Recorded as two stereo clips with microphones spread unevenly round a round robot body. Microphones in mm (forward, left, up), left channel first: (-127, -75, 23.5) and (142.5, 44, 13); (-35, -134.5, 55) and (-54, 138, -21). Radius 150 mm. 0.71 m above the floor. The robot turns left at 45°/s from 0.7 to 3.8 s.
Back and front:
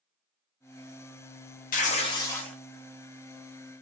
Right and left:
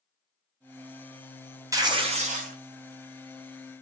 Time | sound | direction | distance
1.7 | tearing paper | 150° left | 0.9 m